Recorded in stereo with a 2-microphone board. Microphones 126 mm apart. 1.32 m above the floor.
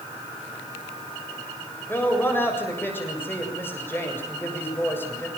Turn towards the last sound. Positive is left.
turn(degrees=15)  # may be behind; listen again after turning